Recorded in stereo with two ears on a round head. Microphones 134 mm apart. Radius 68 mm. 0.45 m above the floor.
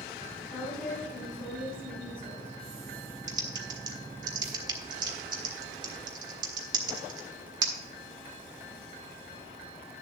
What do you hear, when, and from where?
0.5 s a woman speaking: 5° left (ahead or behind), 5 m
3.3 s typing on a keyboard: 30° right (ahead or behind), 1.5 m